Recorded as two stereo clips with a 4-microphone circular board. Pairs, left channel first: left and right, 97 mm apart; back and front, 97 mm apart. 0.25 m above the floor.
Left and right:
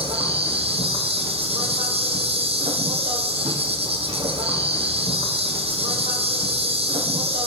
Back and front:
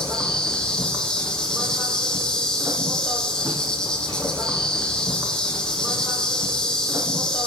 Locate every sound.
0.0 s an insect: 100° right, 3 m